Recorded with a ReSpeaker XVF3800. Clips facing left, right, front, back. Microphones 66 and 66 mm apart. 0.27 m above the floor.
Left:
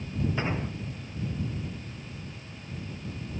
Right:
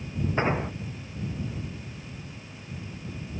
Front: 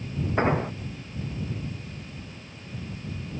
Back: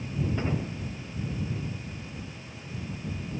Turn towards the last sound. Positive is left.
turn(degrees=-30)